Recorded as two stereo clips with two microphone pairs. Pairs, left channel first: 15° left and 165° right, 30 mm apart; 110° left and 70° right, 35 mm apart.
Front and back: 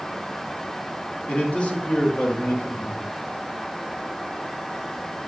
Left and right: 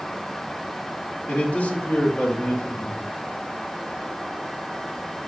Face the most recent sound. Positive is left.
turn(degrees=65)